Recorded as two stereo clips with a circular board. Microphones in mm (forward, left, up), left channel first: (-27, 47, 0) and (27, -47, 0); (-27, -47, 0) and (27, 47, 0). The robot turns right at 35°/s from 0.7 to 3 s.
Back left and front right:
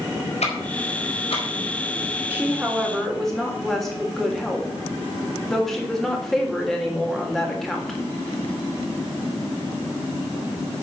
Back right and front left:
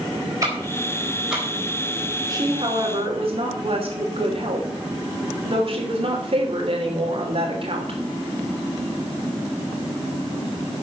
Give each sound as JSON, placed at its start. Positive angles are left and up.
{"t": 0.4, "sound": "ticking", "azimuth_deg": 120, "distance_m": 5.0}
{"t": 2.3, "sound": "a woman speaking", "azimuth_deg": 10, "distance_m": 3.0}